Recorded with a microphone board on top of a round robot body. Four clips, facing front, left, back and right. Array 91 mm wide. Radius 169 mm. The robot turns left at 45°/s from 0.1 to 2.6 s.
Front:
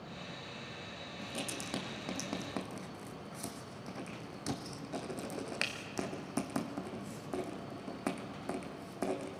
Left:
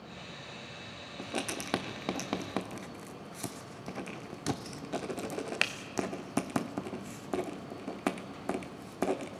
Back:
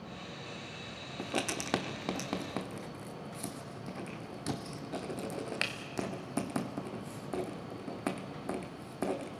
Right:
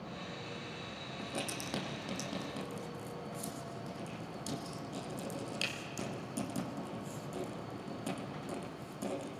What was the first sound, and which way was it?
Writing, 160° left.